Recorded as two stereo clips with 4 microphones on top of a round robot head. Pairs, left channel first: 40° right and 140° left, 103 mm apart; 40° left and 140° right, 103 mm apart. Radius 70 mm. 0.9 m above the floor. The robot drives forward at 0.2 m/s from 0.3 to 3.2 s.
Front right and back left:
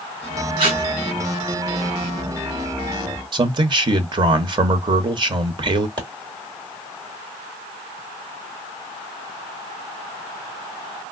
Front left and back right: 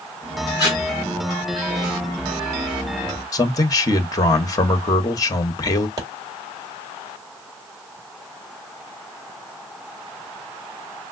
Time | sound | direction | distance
0.6 | tape being pulled | 95° left | 2.5 m
3.3 | a man speaking | 95° left | 0.8 m
6.0 | a pop | 170° left | 1.8 m